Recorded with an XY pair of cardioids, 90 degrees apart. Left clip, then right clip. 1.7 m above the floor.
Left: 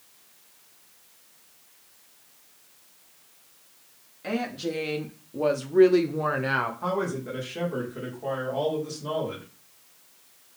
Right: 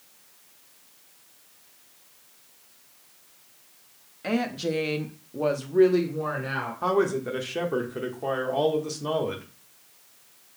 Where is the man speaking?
50° right, 1.4 m.